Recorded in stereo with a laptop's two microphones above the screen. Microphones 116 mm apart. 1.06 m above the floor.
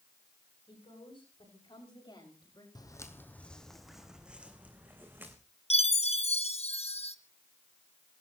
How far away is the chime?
About 0.9 m.